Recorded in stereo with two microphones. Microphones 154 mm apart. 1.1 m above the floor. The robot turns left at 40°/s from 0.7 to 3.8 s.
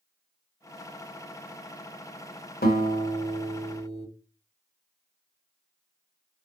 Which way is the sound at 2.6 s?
90° left.